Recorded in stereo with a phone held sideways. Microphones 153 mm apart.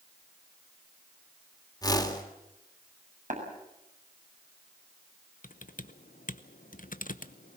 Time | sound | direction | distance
1.8 | a whoosh | 25° left (ahead or behind) | 3 m
3.3 | tapping | 55° right (ahead or behind) | 7 m
5.4 | typing on a keyboard | 60° left (ahead or behind) | 0.9 m